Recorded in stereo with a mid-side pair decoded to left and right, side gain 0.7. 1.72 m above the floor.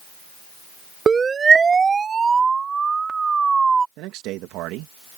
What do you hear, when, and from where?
1.1 s a siren: 25° right; by 3.9 s 20° right
4.0 s a man speaking: 65° right